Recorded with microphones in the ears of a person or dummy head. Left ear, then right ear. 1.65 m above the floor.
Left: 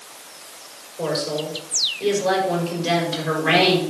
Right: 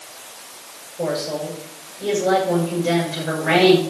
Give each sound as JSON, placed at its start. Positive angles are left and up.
{"t": 1.0, "sound": "a woman speaking", "side_deg": 65, "distance_m": 7.0}